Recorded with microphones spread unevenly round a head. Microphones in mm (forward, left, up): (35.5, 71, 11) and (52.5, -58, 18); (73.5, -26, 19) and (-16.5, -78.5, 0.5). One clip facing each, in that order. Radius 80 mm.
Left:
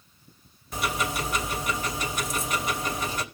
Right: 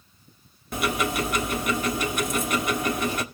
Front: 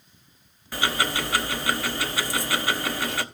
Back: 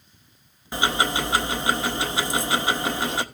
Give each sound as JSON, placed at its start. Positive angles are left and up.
{"t": 0.7, "sound": "ticking", "azimuth_deg": -80, "distance_m": 1.1}